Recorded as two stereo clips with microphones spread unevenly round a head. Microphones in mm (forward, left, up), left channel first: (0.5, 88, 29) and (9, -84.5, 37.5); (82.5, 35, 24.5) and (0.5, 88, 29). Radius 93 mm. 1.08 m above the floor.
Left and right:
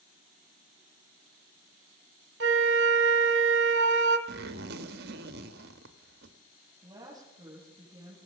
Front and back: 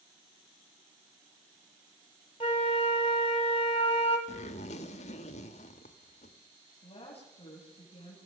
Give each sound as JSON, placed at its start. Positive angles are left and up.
{"t": 2.4, "sound": "a flute", "azimuth_deg": -85, "distance_m": 1.3}
{"t": 4.3, "sound": "a zipper", "azimuth_deg": -55, "distance_m": 1.2}
{"t": 6.8, "sound": "a woman speaking", "azimuth_deg": -20, "distance_m": 7.5}